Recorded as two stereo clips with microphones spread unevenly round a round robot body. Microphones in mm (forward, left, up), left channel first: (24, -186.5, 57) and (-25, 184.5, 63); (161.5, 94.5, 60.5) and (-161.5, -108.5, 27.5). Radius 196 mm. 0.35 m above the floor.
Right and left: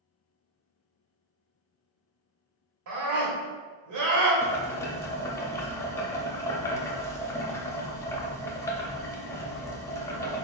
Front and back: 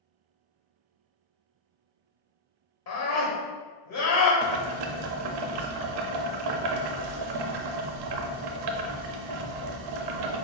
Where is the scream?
75° left, 1.5 m.